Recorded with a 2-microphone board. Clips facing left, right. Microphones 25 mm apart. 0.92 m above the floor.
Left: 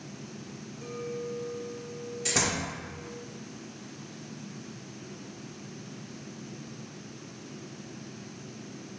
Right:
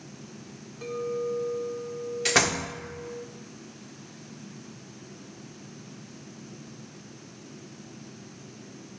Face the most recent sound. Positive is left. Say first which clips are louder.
# right 5 dB
turn(degrees=-45)  # may be behind; listen again after turning